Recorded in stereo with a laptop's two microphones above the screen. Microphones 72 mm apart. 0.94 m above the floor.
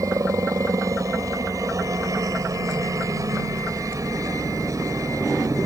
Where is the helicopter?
50° right (ahead or behind).